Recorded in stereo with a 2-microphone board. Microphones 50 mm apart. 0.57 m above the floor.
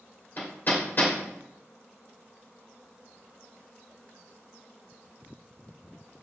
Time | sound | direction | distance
0.4 | hammering | 45° left (ahead or behind) | 2 m